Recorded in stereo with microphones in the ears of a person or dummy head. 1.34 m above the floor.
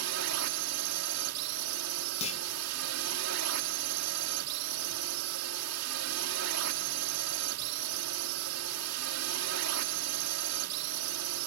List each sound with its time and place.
0.0 s a drone: 75° right (ahead or behind)
2.2 s a clunk: 30° left (ahead or behind)